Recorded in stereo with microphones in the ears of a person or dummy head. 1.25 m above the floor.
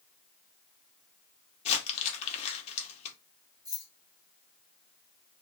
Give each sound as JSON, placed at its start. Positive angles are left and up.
{"t": 1.6, "sound": "crumpling", "side_deg": 35, "distance_m": 0.6}
{"t": 3.6, "sound": "keys jangling", "side_deg": -15, "distance_m": 0.8}